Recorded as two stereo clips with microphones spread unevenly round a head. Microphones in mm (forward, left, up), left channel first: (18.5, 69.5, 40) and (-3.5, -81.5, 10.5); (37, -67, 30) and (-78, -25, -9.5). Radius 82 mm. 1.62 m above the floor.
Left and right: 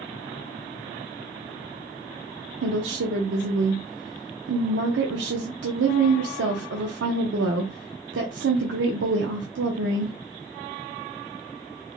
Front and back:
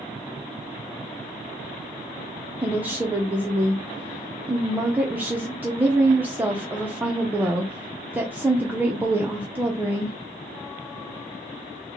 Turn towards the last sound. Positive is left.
turn(degrees=-115)